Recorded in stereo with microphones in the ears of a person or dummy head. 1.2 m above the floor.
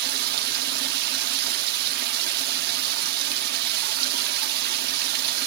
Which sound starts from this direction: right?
Running water, at 0.0 s.